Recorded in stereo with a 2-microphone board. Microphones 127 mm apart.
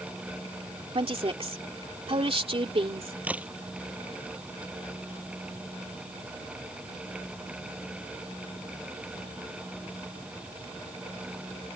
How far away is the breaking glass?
No breaking glass in this recording.